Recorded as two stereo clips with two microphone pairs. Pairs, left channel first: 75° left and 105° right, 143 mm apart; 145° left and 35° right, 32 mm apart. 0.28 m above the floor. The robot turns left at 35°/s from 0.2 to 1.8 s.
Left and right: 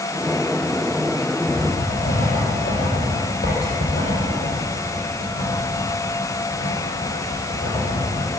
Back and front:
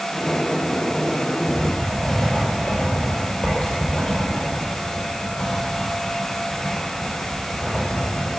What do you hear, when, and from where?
1.5 s writing: 90° left, 6.5 m; by 8.3 s 80° left, 6.5 m